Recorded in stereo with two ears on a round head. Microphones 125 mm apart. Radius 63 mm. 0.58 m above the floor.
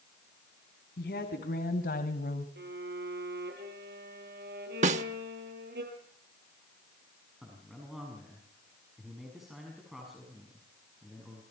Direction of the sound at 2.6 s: 80° right.